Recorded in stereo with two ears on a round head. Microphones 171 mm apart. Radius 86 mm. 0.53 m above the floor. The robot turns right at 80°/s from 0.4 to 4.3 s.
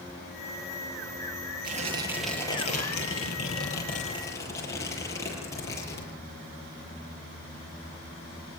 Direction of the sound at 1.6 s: 50° right.